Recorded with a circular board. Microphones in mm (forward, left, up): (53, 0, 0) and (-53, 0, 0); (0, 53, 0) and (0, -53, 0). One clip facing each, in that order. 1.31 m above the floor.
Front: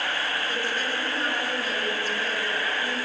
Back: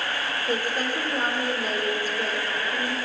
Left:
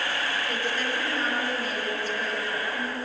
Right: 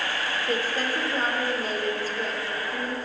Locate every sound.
0.5 s a woman speaking: 140° right, 4 m